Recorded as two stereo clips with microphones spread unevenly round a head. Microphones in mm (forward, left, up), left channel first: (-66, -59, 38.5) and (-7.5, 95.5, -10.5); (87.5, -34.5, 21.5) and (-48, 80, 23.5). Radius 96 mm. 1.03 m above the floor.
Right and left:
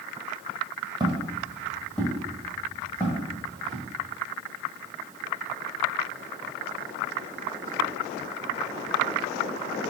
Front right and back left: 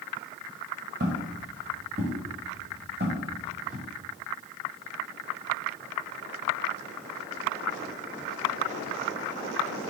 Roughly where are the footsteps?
Behind left.